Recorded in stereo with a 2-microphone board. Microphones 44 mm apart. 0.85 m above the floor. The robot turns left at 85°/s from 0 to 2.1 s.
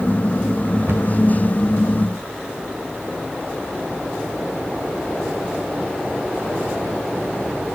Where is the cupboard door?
75° right (ahead or behind), 1.4 m.